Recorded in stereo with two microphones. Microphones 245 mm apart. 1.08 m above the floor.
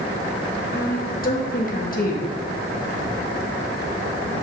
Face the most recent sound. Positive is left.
turn(degrees=35)  # may be behind; listen again after turning